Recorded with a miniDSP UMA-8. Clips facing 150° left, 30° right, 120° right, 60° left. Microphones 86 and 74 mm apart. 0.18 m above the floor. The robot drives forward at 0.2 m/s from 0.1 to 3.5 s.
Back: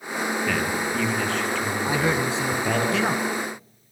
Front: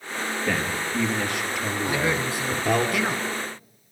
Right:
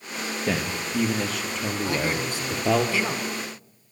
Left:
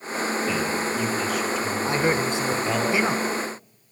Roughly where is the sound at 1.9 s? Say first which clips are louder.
Back 2 dB, left 5 dB; left.